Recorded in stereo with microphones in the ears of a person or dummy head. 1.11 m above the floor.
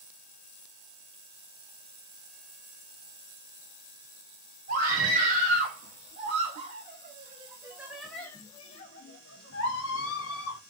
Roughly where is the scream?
Right.